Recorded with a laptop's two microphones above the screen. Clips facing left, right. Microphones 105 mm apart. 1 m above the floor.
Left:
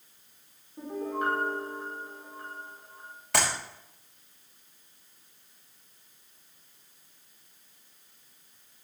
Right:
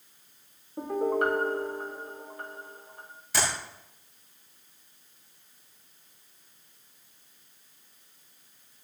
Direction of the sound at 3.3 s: 70° left (ahead or behind).